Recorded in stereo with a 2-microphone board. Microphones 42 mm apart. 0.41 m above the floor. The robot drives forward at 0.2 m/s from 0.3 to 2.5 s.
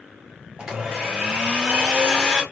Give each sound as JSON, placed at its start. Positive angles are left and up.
{"t": 0.6, "sound": "a blender", "side_deg": -15, "distance_m": 1.0}